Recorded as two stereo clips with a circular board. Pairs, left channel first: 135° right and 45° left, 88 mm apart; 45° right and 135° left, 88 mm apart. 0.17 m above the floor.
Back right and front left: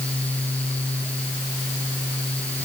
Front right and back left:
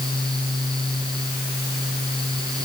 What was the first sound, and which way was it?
Only background noise.